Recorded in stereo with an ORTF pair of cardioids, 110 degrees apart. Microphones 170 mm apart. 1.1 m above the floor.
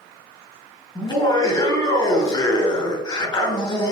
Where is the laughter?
25° left, 2.5 m.